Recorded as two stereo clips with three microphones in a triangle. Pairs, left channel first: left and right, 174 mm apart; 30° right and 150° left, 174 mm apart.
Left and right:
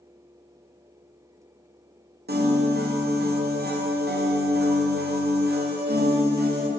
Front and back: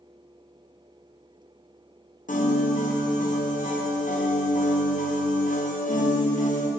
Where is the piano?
70° right, 0.9 m.